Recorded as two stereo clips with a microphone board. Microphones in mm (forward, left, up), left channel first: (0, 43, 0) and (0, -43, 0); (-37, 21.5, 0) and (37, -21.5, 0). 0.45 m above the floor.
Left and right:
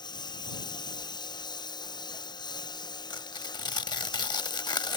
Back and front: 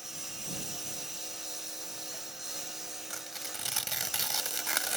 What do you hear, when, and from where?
0.0 s a lawn mower: 55° left
3.1 s tearing paper: 60° left